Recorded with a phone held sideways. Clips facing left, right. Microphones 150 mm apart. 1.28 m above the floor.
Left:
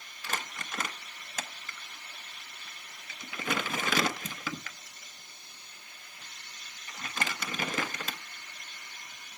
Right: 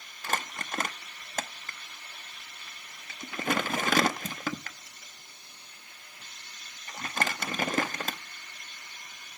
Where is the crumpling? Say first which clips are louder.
Right 5 dB; 45° right (ahead or behind), 0.9 m.